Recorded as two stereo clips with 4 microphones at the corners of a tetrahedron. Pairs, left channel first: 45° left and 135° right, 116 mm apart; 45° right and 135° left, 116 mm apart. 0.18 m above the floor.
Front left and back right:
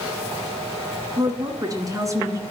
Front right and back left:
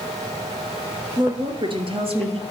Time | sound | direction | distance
1.2 | a woman speaking | straight behind | 1.9 m